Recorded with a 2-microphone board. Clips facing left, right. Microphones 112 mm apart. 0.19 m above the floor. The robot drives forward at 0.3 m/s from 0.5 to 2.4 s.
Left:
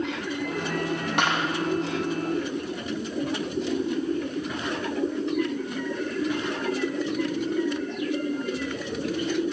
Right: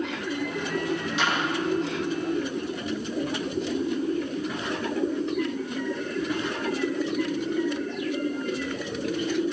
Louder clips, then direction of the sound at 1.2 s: Left 3 dB; 60° left (ahead or behind).